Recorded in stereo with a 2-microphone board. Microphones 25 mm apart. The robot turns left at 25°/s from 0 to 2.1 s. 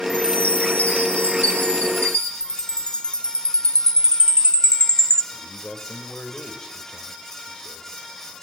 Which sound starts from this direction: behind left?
A chime, at 0.1 s.